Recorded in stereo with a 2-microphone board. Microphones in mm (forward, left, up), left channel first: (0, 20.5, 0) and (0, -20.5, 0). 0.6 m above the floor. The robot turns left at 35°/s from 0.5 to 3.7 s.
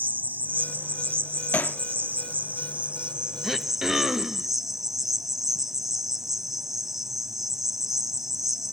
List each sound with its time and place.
0.0 s an insect: 55° right, 0.8 m; by 8.7 s 170° right, 0.8 m
1.5 s hammering: 50° left (ahead or behind), 0.6 m
3.4 s throat clearing: 5° left (ahead or behind), 0.8 m; by 4.5 s 5° right (ahead or behind), 0.8 m